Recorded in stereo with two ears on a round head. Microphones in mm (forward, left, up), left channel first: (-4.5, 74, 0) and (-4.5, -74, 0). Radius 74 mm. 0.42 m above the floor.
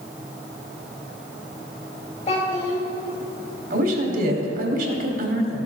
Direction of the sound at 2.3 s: 35° left (ahead or behind).